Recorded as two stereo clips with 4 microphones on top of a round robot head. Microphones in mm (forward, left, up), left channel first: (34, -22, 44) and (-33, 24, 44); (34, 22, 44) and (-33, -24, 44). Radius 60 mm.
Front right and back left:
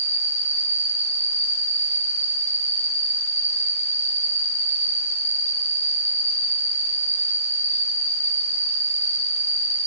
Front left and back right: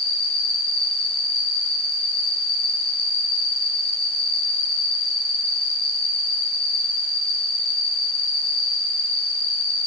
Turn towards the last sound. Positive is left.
turn(degrees=25)